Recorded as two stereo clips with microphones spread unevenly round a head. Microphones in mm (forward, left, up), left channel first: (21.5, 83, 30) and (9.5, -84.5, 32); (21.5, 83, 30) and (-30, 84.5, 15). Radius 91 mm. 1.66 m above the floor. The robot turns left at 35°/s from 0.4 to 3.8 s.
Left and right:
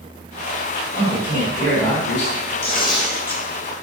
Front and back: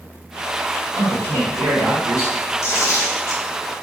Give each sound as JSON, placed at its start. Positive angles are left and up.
{"t": 0.9, "sound": "a man speaking", "azimuth_deg": -165, "distance_m": 1.5}
{"t": 2.6, "sound": "tearing paper", "azimuth_deg": 30, "distance_m": 0.8}